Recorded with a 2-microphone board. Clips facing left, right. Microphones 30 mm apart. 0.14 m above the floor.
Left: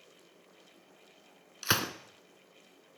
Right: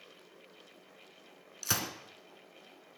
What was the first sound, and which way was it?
A gunshot, 35° left (ahead or behind).